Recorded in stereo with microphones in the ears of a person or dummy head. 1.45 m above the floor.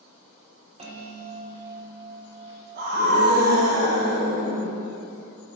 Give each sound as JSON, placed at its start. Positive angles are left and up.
{"t": 0.8, "sound": "a bell", "side_deg": -30, "distance_m": 1.6}
{"t": 2.8, "sound": "a scream", "side_deg": -55, "distance_m": 1.3}